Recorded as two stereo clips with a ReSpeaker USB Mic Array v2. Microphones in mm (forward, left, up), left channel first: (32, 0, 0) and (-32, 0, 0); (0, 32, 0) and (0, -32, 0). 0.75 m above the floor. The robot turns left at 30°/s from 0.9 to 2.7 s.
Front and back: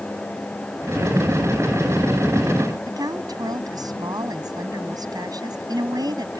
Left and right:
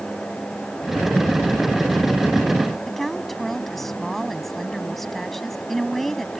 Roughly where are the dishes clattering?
No dishes clattering in this recording.